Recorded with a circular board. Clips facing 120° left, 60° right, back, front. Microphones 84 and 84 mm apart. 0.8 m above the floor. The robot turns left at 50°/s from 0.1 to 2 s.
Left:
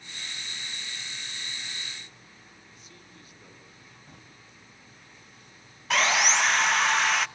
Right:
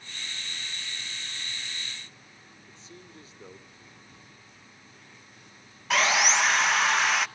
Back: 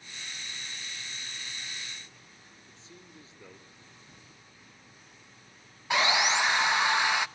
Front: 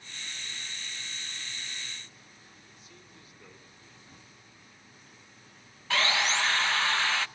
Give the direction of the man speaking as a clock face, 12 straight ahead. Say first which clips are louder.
Right 3 dB, back 2 dB; 4 o'clock.